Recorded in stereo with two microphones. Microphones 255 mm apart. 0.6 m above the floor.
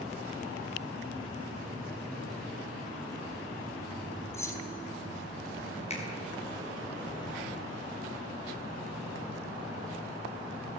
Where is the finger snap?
25° left (ahead or behind), 5 m.